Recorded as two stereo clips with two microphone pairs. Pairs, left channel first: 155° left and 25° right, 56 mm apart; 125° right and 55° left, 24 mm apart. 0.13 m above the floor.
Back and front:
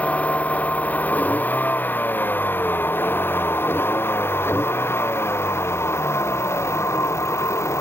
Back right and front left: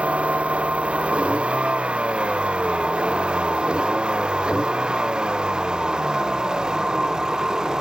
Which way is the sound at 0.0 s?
85° left.